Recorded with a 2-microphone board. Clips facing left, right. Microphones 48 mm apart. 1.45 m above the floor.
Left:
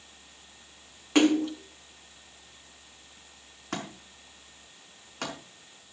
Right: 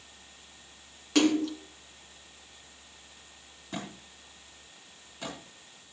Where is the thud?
75° left (ahead or behind), 5.5 m.